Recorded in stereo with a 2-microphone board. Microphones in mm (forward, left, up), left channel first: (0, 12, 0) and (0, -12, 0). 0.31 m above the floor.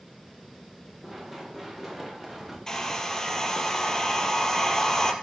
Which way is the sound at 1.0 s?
5° right (ahead or behind).